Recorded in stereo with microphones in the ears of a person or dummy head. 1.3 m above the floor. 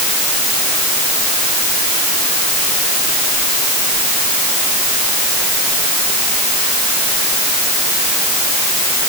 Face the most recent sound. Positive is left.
No sound to turn to.